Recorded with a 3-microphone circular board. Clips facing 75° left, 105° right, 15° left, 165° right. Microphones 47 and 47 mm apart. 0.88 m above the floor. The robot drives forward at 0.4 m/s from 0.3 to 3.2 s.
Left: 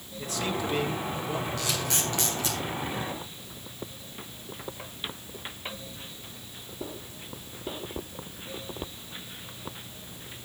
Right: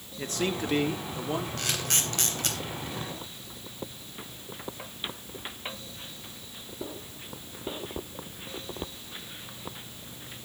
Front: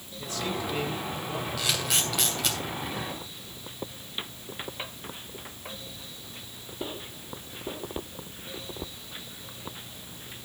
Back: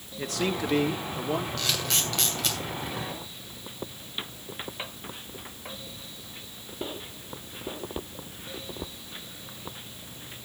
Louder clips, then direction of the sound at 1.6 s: Left 1 dB, front 1 dB; 65° right.